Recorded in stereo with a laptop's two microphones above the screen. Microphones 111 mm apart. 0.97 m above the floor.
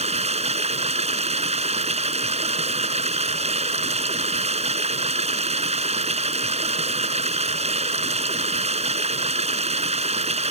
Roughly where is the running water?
Right.